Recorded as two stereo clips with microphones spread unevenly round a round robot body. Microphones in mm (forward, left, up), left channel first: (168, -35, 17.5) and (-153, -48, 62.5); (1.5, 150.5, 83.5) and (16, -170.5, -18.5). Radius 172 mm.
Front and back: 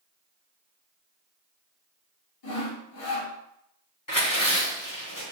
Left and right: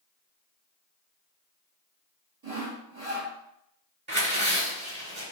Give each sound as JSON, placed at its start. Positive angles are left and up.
{"t": 2.4, "sound": "sawing", "azimuth_deg": -10, "distance_m": 2.5}
{"t": 4.1, "sound": "tearing paper", "azimuth_deg": -25, "distance_m": 2.5}